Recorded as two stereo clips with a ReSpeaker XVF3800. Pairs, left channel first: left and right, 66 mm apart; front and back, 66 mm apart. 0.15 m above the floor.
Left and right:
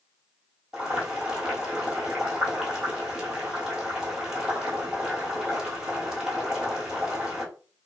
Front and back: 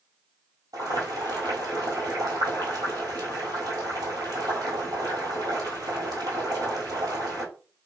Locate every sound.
0.7 s boiling: 170° right, 1.7 m